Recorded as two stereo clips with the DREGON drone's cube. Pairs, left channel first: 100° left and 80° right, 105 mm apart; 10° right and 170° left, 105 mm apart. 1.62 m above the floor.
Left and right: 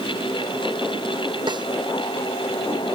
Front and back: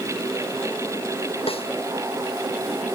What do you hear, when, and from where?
1.5 s a snare drum: 35° right